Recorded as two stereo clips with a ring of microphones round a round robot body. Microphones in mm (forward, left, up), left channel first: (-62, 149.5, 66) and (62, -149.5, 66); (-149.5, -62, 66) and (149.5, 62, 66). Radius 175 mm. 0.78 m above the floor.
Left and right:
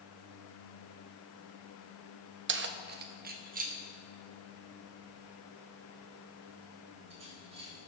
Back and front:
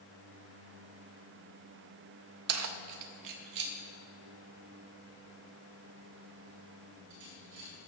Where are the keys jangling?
15° right, 0.6 m; by 7.7 s 5° left, 3.5 m.